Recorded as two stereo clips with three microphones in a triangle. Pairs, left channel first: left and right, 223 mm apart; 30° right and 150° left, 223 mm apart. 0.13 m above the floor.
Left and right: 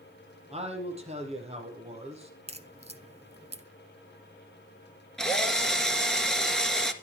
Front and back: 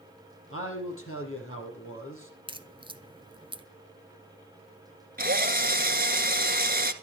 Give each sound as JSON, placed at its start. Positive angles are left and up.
{"t": 0.5, "sound": "a man speaking", "azimuth_deg": -30, "distance_m": 4.5}
{"t": 2.5, "sound": "a crack", "azimuth_deg": -145, "distance_m": 0.8}
{"t": 5.2, "sound": "a drill", "azimuth_deg": 175, "distance_m": 1.5}